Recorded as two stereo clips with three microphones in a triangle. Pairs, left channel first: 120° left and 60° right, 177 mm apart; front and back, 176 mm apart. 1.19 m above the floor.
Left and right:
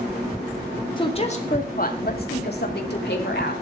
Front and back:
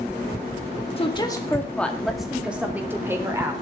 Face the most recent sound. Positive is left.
turn(degrees=105)